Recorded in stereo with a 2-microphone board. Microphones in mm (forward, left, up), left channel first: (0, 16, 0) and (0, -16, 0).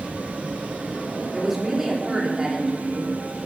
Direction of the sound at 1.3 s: 5° right (ahead or behind).